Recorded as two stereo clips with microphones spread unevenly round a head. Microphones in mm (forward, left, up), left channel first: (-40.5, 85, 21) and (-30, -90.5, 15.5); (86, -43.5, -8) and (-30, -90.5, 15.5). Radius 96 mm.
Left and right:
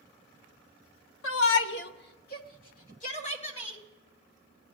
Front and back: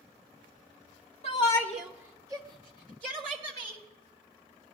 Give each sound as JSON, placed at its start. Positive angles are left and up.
{"t": 1.2, "sound": "a shout", "azimuth_deg": 75, "distance_m": 0.7}